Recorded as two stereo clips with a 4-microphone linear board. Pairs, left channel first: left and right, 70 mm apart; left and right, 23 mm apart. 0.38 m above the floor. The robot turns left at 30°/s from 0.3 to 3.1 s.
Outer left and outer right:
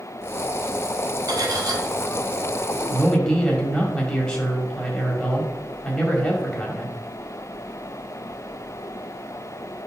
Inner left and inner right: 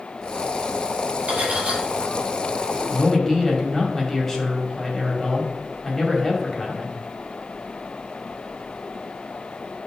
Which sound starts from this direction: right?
Cutlery clinking, at 1.3 s.